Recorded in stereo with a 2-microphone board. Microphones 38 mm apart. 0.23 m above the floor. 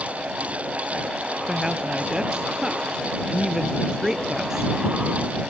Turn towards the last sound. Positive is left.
turn(degrees=-15)  # may be behind; listen again after turning